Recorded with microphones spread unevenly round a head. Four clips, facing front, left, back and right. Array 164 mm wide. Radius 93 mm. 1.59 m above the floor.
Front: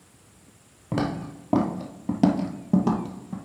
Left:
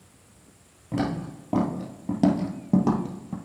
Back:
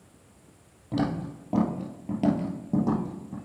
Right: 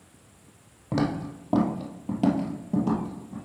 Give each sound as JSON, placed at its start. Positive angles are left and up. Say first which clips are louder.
{"t": 0.9, "sound": "footsteps", "louder": "right 1 dB, front 1 dB", "azimuth_deg": -40, "distance_m": 2.0}